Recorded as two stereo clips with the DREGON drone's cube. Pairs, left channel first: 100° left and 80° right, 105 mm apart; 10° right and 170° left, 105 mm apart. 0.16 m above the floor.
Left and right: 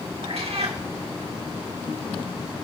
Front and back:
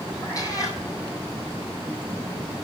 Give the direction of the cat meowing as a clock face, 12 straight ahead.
2 o'clock.